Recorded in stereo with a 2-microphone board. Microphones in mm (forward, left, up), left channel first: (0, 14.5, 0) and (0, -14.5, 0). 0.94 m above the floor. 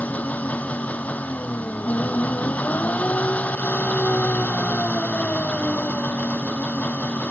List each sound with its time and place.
0.0 s an engine running: 65° left (ahead or behind)